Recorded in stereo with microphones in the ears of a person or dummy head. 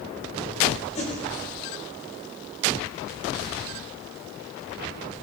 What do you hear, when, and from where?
0.9 s a whoosh: 35° left (ahead or behind), 5 m